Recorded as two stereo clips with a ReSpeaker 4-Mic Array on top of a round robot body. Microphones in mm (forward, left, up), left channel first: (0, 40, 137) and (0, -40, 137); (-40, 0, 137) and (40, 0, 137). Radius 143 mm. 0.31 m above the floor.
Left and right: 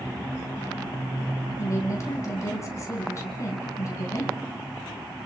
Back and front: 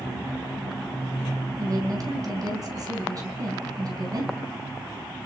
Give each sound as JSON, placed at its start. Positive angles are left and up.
{"t": 1.6, "sound": "a woman speaking", "azimuth_deg": 40, "distance_m": 4.5}